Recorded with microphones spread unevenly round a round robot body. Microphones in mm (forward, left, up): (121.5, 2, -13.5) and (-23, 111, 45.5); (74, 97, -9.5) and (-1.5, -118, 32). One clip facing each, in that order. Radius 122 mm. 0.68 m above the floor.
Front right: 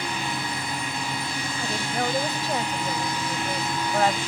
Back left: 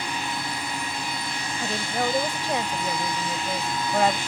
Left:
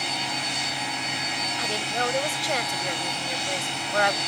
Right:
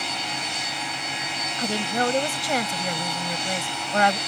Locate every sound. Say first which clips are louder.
1.6 s a woman speaking: back left 1 dB, right 6 dB; 135° right